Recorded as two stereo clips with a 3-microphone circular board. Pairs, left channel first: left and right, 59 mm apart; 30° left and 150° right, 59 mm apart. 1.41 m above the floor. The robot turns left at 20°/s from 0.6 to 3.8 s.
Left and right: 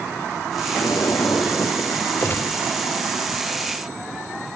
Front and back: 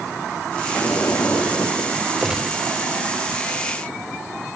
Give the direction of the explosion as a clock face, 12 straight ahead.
9 o'clock.